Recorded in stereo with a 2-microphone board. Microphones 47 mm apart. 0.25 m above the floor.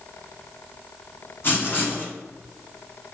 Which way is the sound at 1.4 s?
50° left (ahead or behind).